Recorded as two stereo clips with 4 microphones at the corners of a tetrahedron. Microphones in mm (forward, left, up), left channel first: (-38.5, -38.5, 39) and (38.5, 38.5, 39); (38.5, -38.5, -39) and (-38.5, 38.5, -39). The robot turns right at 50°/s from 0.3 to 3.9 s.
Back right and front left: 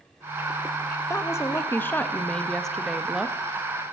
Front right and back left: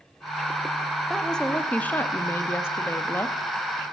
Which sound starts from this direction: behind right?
A woman speaking, at 1.1 s.